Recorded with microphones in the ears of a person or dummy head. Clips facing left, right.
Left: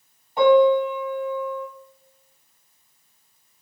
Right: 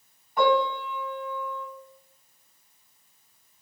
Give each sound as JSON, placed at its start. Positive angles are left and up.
{"t": 0.4, "sound": "a piano", "side_deg": 30, "distance_m": 1.7}